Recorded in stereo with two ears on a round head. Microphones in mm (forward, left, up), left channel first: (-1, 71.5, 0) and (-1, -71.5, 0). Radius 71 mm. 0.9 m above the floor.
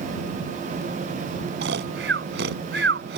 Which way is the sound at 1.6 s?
75° right (ahead or behind).